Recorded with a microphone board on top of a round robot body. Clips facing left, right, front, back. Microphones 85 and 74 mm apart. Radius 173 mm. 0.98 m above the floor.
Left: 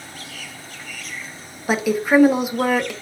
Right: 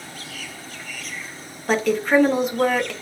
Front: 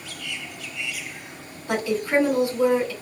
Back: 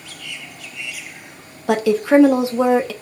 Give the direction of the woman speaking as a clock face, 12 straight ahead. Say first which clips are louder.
Left 1 dB, back 8 dB; 6 o'clock.